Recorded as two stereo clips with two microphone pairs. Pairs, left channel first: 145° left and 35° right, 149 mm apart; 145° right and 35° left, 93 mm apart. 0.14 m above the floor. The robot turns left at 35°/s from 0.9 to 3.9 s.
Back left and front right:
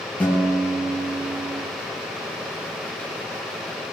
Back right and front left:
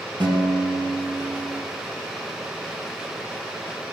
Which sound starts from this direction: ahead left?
A guitar, at 0.2 s.